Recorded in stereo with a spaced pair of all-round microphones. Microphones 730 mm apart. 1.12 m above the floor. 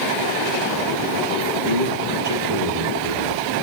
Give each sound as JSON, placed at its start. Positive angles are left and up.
{"t": 1.6, "sound": "a man speaking", "side_deg": -85, "distance_m": 2.0}